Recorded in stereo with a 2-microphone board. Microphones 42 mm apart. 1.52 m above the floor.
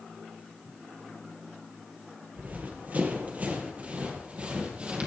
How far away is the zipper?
I don't hear a zipper.